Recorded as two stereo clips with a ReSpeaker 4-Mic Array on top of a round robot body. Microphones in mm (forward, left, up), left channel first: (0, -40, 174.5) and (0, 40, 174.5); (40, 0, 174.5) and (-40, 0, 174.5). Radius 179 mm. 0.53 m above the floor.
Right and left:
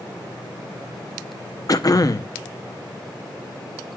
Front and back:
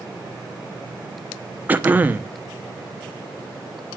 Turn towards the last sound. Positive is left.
turn(degrees=-115)